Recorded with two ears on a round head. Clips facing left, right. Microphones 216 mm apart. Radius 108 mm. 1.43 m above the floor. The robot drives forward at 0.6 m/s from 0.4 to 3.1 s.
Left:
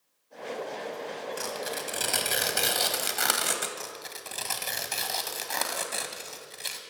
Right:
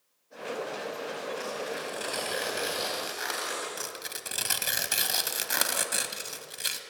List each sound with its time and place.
1.4 s tearing paper: 55° left (ahead or behind), 3.5 m; by 3.7 s 65° left (ahead or behind), 3 m
3.8 s tearing paper: 15° right (ahead or behind), 1.9 m